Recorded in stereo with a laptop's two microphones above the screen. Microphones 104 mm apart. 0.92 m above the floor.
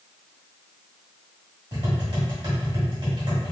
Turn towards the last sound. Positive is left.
turn(degrees=-45)  # may be behind; listen again after turning